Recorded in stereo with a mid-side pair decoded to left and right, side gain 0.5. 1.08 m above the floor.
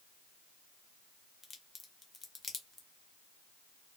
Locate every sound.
1.4 s a crack: 30° left, 1.0 m